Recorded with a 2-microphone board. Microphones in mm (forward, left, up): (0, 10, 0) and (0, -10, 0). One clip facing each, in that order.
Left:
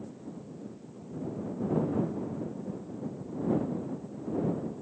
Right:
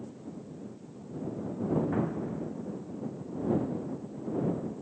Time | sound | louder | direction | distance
1.9 | an explosion | even | 45° right (ahead or behind) | ?